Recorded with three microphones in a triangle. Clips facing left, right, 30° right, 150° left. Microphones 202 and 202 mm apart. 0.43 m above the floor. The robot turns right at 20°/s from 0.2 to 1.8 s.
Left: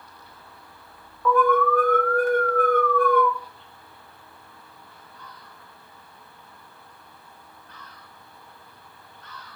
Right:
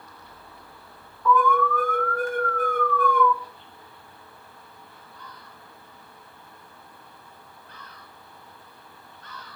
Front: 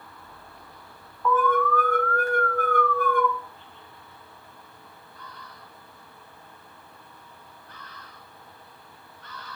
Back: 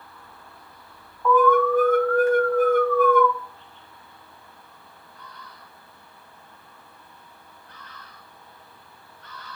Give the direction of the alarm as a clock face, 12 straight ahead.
10 o'clock.